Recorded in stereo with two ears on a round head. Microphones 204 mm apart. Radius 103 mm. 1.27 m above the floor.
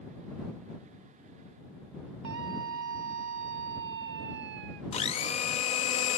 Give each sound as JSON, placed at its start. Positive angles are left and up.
{"t": 2.2, "sound": "a scream", "side_deg": -70}
{"t": 4.9, "sound": "a blender", "side_deg": 25}